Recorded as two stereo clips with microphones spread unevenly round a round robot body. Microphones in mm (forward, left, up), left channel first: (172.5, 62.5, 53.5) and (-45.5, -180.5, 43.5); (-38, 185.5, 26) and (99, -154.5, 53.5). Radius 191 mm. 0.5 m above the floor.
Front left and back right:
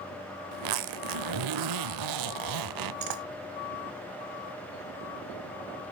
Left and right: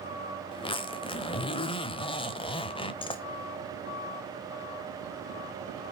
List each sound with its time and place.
0.5 s a zipper: 170° right, 0.6 m